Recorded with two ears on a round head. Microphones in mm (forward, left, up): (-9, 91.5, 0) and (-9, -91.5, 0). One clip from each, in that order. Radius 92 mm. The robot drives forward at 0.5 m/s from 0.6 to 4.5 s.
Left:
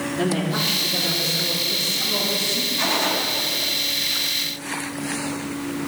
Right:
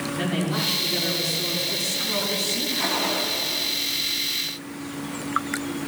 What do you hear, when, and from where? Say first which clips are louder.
0.2 s a man speaking: left 3 dB; 15° right (ahead or behind), 6.5 m; by 2.7 s 20° right (ahead or behind), 5.5 m
2.8 s a gunshot: left 3 dB; 75° left (ahead or behind), 4 m